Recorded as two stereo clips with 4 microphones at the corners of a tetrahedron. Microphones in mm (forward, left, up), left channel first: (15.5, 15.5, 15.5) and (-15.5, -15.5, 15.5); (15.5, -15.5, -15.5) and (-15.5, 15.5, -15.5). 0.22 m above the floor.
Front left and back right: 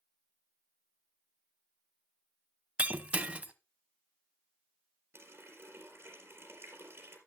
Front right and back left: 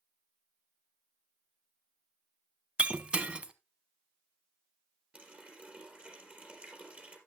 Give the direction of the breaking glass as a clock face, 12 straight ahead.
6 o'clock.